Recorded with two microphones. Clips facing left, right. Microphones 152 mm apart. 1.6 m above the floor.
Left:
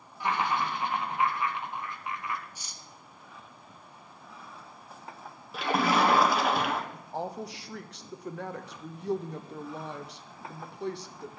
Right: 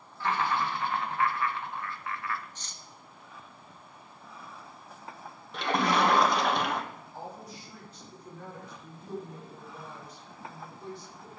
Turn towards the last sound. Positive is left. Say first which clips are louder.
# left 7 dB
turn(degrees=75)  # may be behind; listen again after turning